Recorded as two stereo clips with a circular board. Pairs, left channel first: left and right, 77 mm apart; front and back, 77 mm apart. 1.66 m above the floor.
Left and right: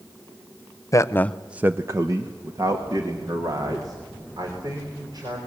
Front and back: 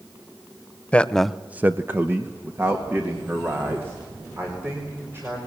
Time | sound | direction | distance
0.9 | a man speaking | 70° left | 0.8 m